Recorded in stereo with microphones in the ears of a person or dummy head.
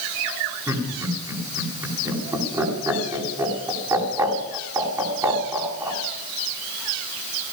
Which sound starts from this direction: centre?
Laughter, at 0.7 s.